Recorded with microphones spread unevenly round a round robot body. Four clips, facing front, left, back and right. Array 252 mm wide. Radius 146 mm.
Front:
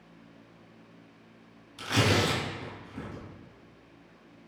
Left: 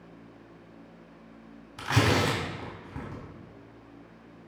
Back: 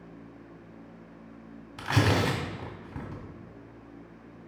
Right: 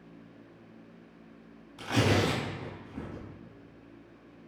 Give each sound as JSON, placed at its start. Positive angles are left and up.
{"t": 1.8, "sound": "tearing paper", "azimuth_deg": 135, "distance_m": 3.0}